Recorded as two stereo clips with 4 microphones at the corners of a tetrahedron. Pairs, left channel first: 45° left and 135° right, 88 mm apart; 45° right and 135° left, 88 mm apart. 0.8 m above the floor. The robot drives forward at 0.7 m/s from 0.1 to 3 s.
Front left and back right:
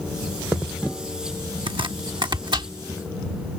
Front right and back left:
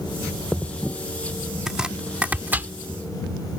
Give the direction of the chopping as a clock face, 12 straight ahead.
5 o'clock.